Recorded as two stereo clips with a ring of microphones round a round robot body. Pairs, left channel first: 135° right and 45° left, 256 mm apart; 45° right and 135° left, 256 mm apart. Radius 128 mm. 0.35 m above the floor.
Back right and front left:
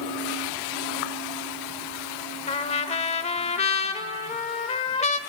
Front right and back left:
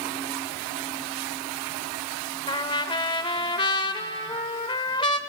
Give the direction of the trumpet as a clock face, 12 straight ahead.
3 o'clock.